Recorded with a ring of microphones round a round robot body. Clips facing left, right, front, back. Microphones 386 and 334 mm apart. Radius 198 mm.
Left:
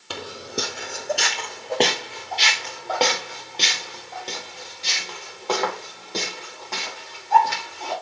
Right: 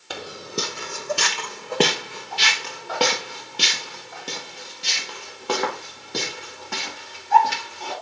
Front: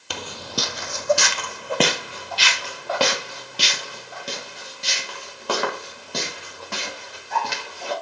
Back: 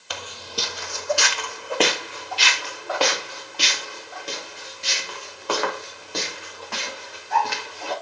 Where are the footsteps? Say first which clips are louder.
Even, front 3 dB; 15° left, 0.6 m; by 7.9 s 20° right, 7 m.